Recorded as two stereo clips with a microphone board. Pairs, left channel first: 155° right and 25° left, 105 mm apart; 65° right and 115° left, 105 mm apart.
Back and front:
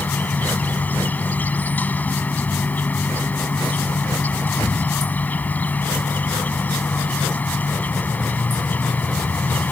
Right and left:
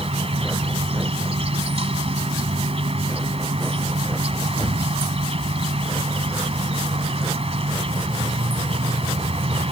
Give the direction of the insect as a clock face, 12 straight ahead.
8 o'clock.